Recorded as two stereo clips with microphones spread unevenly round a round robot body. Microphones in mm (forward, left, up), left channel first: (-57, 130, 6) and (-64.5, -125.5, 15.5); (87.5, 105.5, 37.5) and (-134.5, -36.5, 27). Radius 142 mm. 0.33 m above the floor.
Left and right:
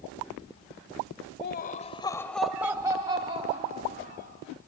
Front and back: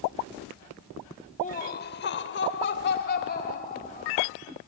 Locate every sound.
1.4 s laughter: 85° left, 1.2 m; by 4.3 s 30° right, 3 m